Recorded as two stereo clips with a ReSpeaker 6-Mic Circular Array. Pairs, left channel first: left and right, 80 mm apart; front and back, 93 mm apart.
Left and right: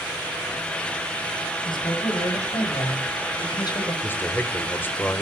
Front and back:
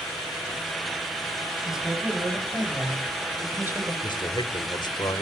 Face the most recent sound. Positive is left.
turn(degrees=25)